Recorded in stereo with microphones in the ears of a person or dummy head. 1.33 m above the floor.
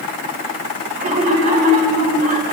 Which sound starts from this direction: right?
Laughter, at 1.0 s.